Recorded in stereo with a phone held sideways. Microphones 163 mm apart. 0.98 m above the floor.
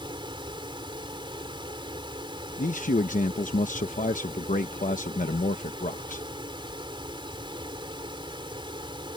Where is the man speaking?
55° left (ahead or behind).